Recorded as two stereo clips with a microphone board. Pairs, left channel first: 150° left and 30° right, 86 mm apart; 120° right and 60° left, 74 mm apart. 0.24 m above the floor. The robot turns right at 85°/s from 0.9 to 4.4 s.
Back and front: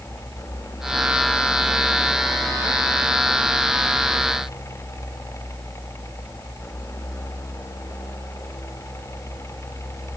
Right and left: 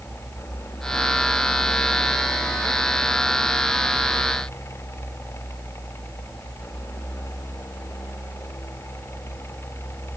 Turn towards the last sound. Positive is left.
No sound to turn to.